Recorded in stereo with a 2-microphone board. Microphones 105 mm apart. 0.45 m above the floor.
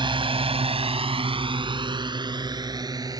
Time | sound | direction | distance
0.0 | a drone | 50° right (ahead or behind) | ?